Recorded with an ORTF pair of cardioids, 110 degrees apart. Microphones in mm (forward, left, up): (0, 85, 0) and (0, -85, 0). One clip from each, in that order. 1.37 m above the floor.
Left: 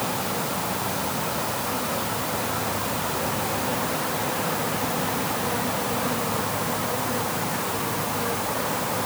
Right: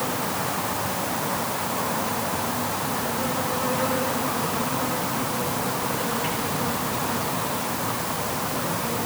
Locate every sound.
Only background noise.